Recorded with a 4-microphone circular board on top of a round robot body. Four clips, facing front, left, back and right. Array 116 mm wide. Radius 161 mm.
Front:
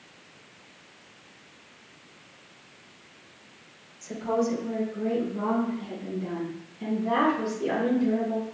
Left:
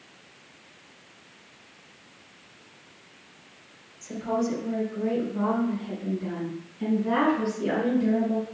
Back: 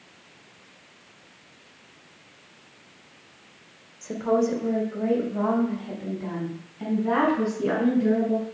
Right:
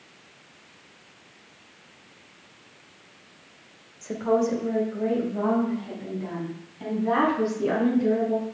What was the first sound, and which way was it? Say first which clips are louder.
A woman speaking: right 4 dB, back 4 dB; 130° right.